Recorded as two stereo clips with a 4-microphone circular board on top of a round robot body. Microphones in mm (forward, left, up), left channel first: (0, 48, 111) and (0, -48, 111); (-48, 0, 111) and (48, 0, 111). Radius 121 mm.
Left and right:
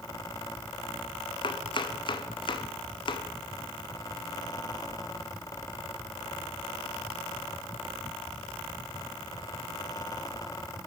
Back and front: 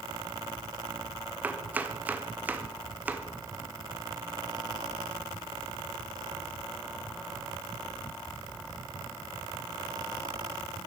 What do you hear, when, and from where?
1.4 s chopping: 70° left, 1.1 m